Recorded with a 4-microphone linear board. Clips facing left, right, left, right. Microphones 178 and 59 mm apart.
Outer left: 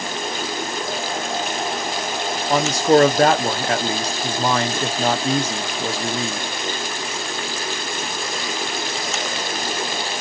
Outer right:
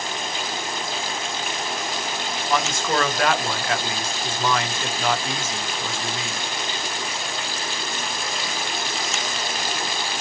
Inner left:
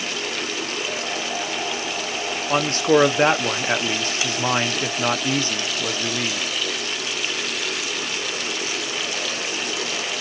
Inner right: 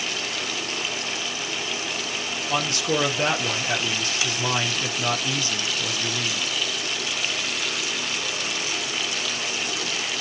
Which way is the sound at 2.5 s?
35° left (ahead or behind).